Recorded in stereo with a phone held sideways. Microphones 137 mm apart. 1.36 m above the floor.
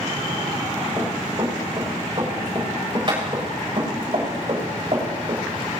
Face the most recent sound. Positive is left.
turn(degrees=-45)  # may be behind; listen again after turning